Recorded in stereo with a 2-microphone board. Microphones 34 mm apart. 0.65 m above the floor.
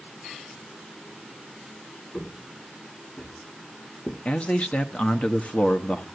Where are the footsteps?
35° left (ahead or behind), 5 m; by 4.2 s 40° left (ahead or behind), 4 m.